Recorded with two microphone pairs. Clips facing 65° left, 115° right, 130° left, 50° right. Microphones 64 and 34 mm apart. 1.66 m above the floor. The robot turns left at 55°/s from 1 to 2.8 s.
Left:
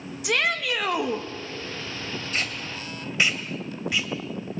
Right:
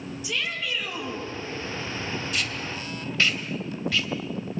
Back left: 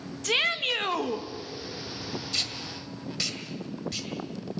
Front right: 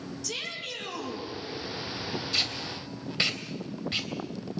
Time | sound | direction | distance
0.2 | a shout | 90° left | 2.5 m
2.3 | tape being pulled | 25° left | 2.5 m